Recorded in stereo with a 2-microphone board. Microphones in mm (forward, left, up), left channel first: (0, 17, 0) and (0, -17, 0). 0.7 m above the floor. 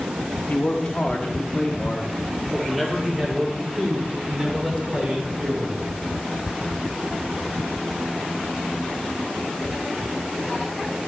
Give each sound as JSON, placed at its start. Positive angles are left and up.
{"t": 0.5, "sound": "a man speaking", "side_deg": 40, "distance_m": 1.5}